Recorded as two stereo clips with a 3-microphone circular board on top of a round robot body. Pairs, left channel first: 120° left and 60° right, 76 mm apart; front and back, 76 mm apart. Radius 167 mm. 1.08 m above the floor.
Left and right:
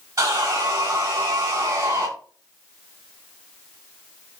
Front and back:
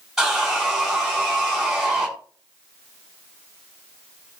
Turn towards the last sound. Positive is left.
turn(degrees=-95)